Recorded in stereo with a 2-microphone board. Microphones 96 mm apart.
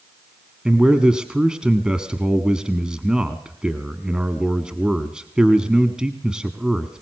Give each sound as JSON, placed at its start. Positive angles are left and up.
{"t": 0.7, "sound": "a man speaking", "side_deg": -10, "distance_m": 1.3}